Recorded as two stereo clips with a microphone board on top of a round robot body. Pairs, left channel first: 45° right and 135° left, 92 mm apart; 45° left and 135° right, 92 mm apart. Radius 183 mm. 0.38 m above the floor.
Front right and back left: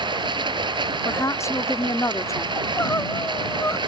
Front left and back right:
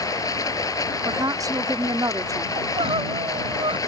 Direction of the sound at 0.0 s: 100° left.